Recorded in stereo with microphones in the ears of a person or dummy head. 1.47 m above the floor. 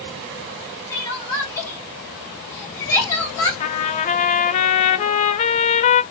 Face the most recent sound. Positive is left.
turn(degrees=35)  # may be behind; listen again after turning